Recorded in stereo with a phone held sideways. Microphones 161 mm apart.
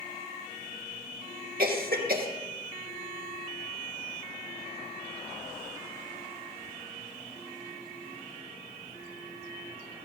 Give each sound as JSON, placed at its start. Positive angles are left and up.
{"t": 1.6, "sound": "a cough", "side_deg": -70, "distance_m": 2.5}